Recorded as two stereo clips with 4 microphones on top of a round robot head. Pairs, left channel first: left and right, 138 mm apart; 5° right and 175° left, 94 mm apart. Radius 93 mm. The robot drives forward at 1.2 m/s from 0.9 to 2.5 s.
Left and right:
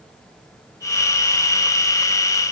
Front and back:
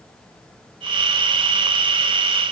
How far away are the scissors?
I don't hear scissors.